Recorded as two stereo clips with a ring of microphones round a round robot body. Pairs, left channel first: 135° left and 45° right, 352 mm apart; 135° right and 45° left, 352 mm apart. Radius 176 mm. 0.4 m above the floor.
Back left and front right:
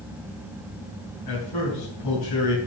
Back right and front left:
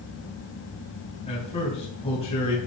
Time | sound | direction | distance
1.3 | a man speaking | 150° left | 3 m